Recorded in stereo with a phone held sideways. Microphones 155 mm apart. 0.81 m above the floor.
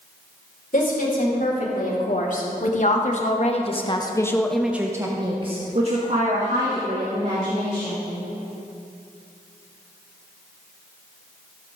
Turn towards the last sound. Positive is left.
turn(degrees=-60)  # may be behind; listen again after turning